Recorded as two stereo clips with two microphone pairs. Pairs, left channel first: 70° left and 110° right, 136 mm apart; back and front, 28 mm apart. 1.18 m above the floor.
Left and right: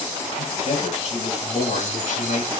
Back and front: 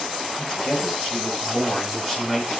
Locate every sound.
0.3 s a man speaking: 115° left, 8.5 m; by 2.5 s 95° left, 6.5 m